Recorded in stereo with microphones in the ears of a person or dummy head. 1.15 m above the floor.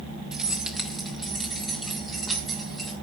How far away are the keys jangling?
About 0.8 m.